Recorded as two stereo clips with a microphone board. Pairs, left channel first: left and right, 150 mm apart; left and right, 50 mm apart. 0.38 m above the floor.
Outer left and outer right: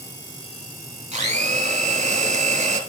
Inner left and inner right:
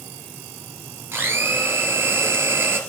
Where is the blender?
50° right (ahead or behind), 2.5 m.